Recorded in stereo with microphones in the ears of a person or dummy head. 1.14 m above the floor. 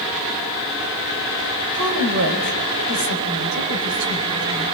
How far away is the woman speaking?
About 4 m.